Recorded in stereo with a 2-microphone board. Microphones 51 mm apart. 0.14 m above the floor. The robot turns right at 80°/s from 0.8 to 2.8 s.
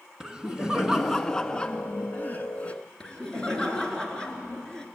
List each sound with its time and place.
0.2 s laughter: 25° right, 1.4 m; by 2.8 s 135° left, 1.4 m
3.0 s laughter: 15° left (ahead or behind), 2.5 m